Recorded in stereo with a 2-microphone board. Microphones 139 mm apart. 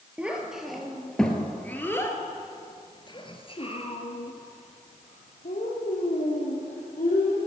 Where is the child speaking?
5° right (ahead or behind), 2.5 m; by 7.4 s 75° left (ahead or behind), 3 m.